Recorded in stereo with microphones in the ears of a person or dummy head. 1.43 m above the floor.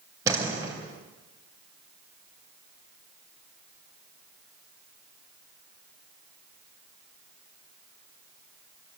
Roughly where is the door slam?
Centre.